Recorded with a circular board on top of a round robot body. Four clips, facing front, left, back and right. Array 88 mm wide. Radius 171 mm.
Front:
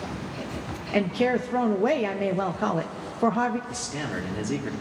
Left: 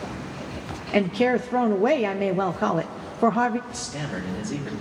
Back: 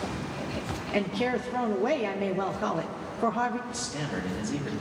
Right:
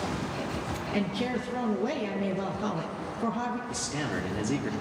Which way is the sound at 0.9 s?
70° left.